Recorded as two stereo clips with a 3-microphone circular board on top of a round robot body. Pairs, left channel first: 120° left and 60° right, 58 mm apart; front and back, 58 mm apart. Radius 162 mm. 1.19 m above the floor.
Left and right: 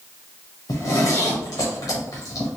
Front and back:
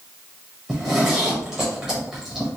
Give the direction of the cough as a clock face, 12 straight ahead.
I don't hear a cough.